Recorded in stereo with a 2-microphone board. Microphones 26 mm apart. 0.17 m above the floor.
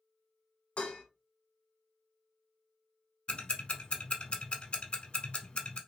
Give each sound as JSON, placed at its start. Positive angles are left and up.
{"t": 0.8, "sound": "dishes clattering", "side_deg": 40, "distance_m": 1.1}
{"t": 3.3, "sound": "ticking", "side_deg": 40, "distance_m": 0.8}